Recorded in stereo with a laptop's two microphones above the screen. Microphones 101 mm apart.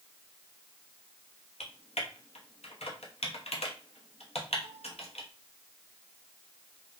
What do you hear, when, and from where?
1.6 s typing on a keyboard: 80° left, 0.8 m